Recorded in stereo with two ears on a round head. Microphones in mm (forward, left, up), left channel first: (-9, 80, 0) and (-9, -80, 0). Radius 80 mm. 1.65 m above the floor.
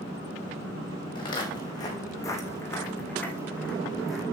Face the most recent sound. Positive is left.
turn(degrees=0)  # may be behind; listen again after turning